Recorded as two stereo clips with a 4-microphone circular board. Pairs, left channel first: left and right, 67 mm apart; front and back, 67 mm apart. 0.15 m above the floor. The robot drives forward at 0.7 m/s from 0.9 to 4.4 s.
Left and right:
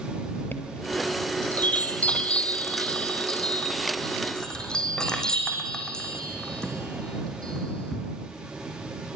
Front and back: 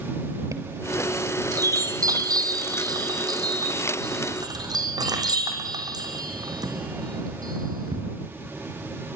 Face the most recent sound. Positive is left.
turn(degrees=170)